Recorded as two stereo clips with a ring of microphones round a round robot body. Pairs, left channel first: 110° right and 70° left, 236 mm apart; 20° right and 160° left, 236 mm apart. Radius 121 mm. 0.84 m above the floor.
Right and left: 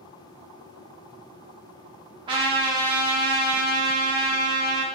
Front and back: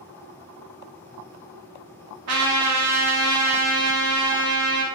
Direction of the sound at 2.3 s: 140° left.